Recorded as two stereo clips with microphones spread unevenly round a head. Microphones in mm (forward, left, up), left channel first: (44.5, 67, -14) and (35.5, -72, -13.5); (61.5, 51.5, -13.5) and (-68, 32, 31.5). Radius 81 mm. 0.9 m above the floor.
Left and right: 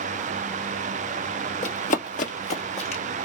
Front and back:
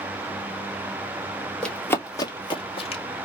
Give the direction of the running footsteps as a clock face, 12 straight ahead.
8 o'clock.